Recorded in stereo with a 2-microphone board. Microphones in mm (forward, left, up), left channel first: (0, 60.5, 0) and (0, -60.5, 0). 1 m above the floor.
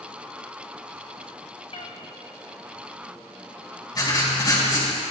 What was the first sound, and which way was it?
A cat meowing, 60° left (ahead or behind).